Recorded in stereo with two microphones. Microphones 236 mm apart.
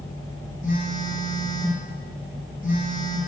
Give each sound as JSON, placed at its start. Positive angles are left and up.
{"t": 0.6, "sound": "a phone buzzing", "side_deg": 35, "distance_m": 1.2}